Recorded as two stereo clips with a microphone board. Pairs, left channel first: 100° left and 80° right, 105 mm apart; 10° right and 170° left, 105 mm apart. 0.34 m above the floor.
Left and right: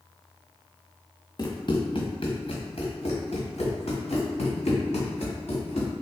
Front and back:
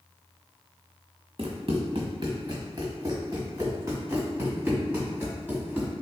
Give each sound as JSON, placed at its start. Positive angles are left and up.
{"t": 1.4, "sound": "running footsteps", "azimuth_deg": 145, "distance_m": 1.3}